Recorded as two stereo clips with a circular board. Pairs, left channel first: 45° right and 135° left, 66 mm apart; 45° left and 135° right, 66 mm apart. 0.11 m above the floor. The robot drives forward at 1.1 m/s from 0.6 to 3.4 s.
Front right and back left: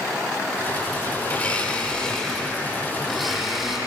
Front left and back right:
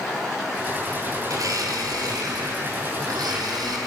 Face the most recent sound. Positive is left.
turn(degrees=-140)